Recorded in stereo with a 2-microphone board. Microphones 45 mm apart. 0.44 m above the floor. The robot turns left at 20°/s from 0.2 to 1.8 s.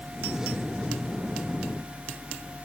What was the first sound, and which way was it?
Only background noise.